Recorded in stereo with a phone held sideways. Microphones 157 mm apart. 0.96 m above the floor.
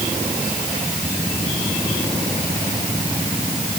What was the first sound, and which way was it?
Only background noise.